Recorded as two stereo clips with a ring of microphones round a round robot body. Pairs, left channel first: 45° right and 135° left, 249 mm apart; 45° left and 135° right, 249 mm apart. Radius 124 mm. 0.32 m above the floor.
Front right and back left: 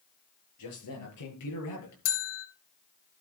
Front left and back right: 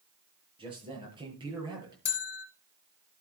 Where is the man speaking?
65° right, 8.5 m; by 1.9 s 60° right, 8 m.